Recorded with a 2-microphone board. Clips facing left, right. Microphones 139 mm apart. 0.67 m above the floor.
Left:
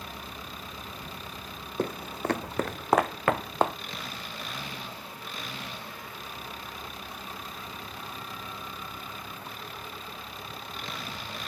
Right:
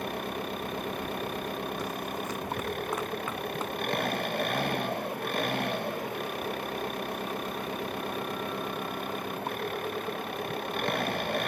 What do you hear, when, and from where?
0.0 s an engine running: 60° right (ahead or behind)
1.8 s footsteps: 60° left (ahead or behind); by 3.8 s 75° left (ahead or behind)